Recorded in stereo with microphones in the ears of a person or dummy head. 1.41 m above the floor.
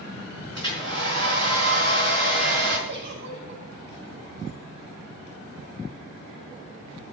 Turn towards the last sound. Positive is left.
turn(degrees=-80)